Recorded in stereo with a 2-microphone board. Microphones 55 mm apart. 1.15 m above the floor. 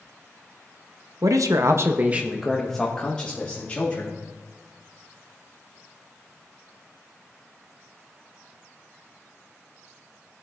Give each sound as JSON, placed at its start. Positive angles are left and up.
{"t": 1.2, "sound": "a man speaking", "side_deg": -85, "distance_m": 0.8}